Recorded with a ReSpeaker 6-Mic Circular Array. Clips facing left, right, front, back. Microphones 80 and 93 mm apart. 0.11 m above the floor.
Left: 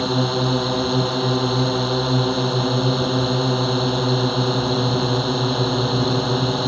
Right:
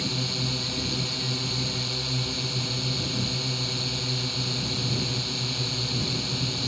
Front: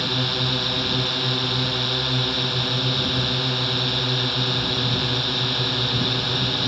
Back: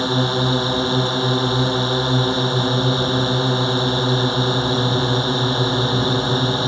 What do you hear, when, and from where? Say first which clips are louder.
0.0 s a drone: left 12 dB, back 7 dB; 120° left